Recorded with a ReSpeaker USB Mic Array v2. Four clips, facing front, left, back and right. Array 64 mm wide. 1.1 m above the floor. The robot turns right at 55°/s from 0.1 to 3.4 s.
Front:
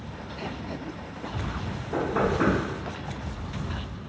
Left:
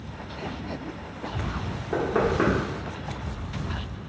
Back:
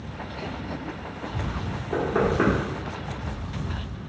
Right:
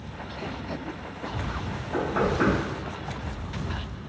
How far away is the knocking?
About 1.5 m.